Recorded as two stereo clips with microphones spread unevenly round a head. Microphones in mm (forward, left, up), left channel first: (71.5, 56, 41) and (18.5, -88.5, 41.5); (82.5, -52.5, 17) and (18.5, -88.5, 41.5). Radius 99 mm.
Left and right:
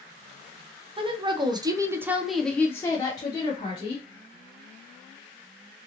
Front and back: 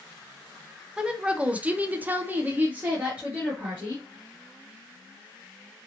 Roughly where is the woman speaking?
Ahead right.